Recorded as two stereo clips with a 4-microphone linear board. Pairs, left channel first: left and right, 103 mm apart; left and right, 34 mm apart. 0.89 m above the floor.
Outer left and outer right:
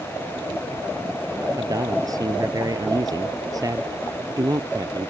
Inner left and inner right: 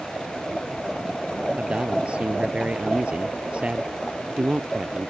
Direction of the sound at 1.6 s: 35° right (ahead or behind).